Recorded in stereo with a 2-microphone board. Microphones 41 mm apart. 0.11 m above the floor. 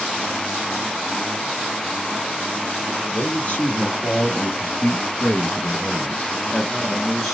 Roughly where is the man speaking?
Left.